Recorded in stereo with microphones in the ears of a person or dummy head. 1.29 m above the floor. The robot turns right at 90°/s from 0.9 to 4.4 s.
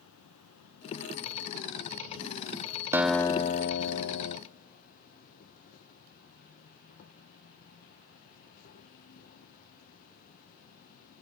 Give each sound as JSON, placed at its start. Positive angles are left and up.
{"t": 0.0, "sound": "an insect", "azimuth_deg": 90, "distance_m": 0.8}
{"t": 2.9, "sound": "a guitar", "azimuth_deg": -15, "distance_m": 0.6}